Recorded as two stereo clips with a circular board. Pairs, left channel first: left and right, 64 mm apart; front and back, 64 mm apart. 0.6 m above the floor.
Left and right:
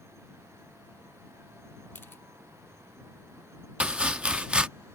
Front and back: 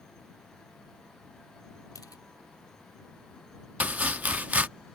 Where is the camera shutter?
30° left.